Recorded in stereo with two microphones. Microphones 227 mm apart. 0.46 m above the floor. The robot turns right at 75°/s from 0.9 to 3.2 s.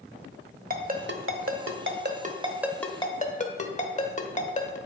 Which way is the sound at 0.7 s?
40° right (ahead or behind).